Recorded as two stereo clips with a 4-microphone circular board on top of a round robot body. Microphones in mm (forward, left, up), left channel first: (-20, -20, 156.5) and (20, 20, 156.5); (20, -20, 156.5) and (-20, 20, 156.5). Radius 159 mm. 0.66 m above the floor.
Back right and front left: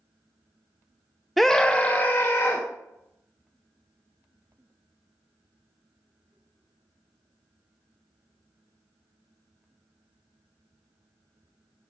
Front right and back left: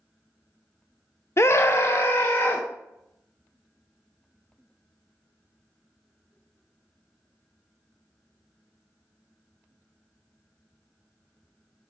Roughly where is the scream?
Ahead right.